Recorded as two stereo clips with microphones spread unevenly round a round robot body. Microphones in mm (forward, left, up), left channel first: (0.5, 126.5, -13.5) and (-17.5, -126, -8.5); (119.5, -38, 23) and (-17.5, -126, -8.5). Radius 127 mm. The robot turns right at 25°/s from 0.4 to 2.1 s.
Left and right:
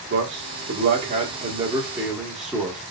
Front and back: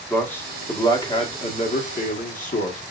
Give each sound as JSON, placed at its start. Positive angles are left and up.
{"t": 0.1, "sound": "a man speaking", "azimuth_deg": -50, "distance_m": 1.5}